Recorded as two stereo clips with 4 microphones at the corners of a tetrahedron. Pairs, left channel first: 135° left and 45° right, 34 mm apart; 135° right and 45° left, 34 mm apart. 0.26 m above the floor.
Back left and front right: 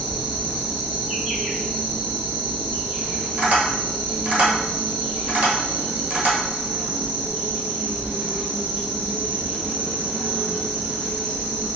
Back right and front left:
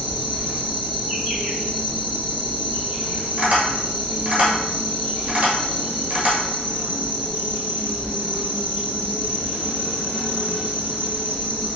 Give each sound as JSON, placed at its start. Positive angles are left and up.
{"t": 0.0, "sound": "an insect", "azimuth_deg": 10, "distance_m": 1.9}
{"t": 3.4, "sound": "tapping", "azimuth_deg": -5, "distance_m": 1.2}